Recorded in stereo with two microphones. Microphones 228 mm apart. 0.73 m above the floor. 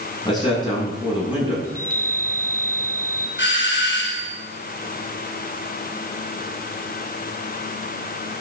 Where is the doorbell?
55° left (ahead or behind), 3.5 m.